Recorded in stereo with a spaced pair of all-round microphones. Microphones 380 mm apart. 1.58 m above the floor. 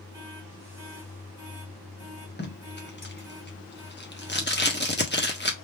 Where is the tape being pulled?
25° left (ahead or behind), 1.1 m.